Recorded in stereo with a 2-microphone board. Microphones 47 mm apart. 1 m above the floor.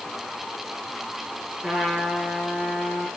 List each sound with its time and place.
1.6 s a trumpet: 30° right (ahead or behind), 7 m